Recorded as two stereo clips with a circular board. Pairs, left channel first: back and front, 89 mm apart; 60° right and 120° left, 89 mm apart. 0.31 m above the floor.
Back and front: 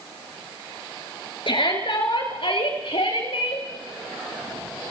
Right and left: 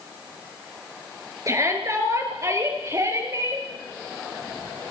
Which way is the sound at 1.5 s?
170° left.